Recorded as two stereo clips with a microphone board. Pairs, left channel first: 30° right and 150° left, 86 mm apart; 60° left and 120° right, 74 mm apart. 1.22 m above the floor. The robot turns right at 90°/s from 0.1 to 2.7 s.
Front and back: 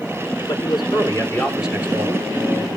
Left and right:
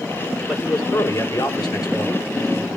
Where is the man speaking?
35° right, 3.5 m; by 2.3 s 120° left, 3.5 m.